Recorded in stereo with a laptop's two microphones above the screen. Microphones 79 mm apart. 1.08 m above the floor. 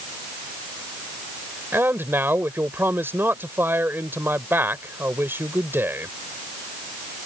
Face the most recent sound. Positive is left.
turn(degrees=-30)  # may be behind; listen again after turning